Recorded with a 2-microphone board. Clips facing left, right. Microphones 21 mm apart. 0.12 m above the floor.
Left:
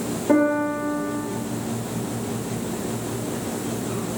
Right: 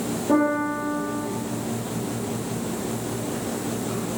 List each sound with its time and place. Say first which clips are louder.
0.3 s a piano: left 2 dB; 65° left (ahead or behind), 1.4 m